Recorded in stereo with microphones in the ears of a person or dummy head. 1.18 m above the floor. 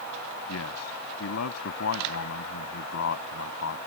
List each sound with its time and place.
0.5 s a man speaking: 85° left